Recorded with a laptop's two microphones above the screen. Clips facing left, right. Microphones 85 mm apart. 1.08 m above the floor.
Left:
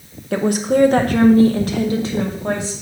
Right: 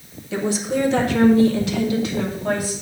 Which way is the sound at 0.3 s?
55° left (ahead or behind).